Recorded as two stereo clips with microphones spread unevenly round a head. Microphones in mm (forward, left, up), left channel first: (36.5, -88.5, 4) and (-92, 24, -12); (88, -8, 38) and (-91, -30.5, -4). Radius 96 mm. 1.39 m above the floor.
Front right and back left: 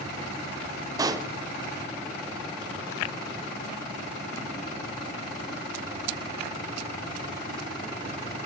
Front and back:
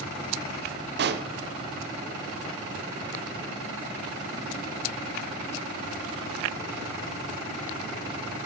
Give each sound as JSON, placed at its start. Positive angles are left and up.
{"t": 1.0, "sound": "a pop", "azimuth_deg": -155, "distance_m": 0.9}